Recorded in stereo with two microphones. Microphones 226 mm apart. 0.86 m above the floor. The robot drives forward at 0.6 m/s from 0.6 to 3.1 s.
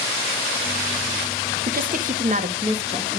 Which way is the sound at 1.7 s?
40° right (ahead or behind).